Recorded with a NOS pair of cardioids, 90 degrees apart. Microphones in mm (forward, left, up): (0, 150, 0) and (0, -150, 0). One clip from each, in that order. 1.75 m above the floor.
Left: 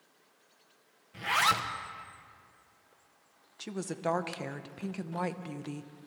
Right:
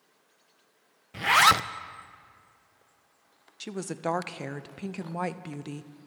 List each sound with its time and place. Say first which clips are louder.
1.1 s a zipper: right 7 dB; 35° right, 0.5 m
3.6 s a woman speaking: right 2 dB; 15° right, 0.7 m